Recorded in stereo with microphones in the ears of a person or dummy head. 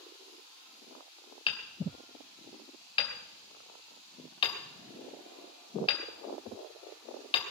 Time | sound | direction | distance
1.5 | hammering | 25° left (ahead or behind) | 2 m